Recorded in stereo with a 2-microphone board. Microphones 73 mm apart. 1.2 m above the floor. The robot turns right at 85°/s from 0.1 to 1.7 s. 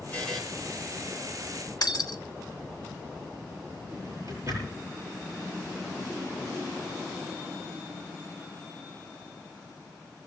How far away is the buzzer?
About 7 m.